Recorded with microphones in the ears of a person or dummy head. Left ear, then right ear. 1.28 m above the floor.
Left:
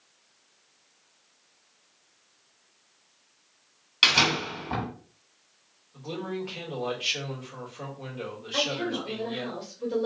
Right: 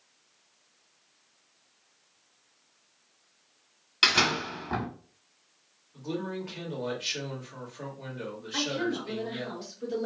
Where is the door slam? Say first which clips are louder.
Left 2 dB; 5° right (ahead or behind), 1.6 m.